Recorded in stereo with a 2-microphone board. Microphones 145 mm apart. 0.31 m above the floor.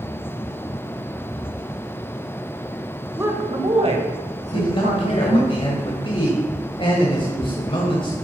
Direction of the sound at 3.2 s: 15° right (ahead or behind).